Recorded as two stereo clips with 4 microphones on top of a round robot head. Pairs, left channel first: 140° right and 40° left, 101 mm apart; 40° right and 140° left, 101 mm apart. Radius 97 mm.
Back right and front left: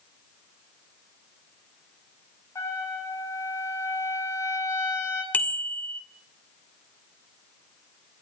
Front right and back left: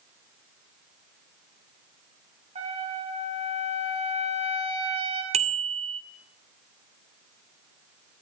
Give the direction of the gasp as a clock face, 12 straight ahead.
No gasp in this recording.